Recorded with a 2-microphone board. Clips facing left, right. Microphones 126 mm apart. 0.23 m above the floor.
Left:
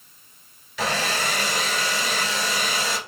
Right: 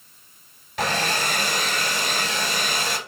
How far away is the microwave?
I don't hear a microwave.